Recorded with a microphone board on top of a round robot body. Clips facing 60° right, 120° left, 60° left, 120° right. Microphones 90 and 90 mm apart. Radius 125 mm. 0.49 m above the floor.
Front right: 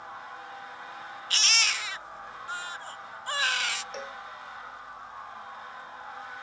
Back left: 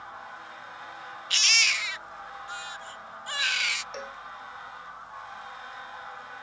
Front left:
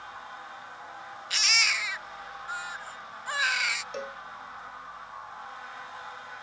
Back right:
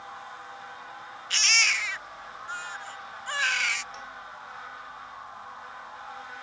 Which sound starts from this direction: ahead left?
A cowbell, at 3.9 s.